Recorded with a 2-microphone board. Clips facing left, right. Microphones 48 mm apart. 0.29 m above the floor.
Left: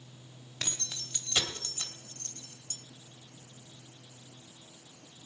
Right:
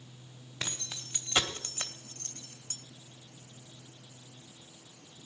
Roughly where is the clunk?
I don't hear a clunk.